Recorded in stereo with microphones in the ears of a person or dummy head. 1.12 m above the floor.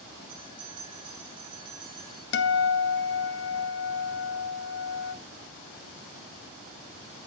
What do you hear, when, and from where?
0.3 s a bell: 25° right (ahead or behind), 6 m
2.3 s a guitar: 55° left (ahead or behind), 1.1 m